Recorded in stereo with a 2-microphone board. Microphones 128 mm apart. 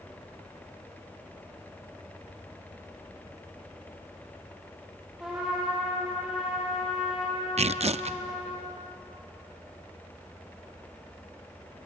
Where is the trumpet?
5° right (ahead or behind), 7 m.